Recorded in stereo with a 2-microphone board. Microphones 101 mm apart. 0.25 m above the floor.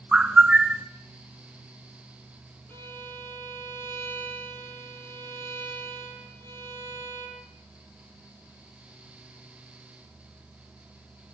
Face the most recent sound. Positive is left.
turn(degrees=25)  # may be behind; listen again after turning